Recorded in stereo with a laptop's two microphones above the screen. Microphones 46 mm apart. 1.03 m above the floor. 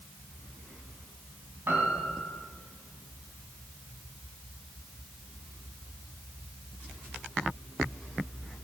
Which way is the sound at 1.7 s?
60° right (ahead or behind).